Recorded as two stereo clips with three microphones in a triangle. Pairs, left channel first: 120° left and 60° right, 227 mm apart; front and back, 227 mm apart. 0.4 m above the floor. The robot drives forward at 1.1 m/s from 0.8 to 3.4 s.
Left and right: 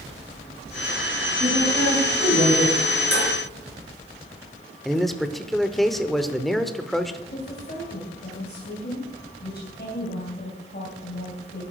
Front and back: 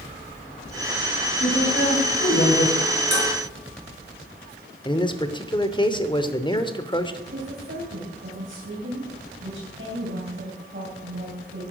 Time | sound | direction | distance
1.4 | a woman speaking | 15° right | 3.5 m
3.1 | dishes clattering | 40° right | 4.5 m
4.8 | a man speaking | 30° left | 0.9 m
7.3 | a woman speaking | 155° left | 3 m